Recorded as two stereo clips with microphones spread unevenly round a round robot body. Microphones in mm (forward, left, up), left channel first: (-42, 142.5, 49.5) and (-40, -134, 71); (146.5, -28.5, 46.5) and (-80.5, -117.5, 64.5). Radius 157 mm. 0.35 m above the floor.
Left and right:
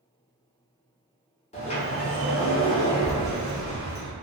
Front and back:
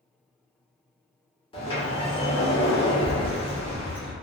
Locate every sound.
1.5 s a sliding door: 60° left, 0.9 m